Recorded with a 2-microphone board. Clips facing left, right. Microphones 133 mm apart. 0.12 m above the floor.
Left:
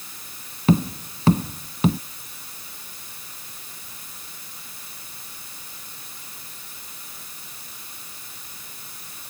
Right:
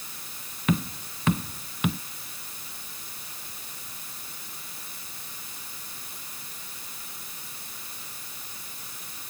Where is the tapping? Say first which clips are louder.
Left 7 dB; 30° left (ahead or behind).